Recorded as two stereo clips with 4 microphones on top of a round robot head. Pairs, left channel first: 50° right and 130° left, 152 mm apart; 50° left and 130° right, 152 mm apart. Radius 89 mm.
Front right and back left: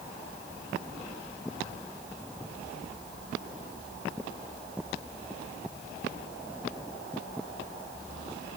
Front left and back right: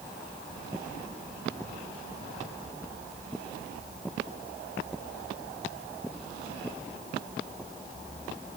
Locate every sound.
Only background noise.